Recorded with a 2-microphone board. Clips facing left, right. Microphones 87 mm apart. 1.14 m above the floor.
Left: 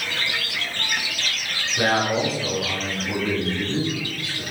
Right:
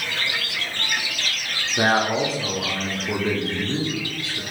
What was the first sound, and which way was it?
A man speaking, 30° right (ahead or behind).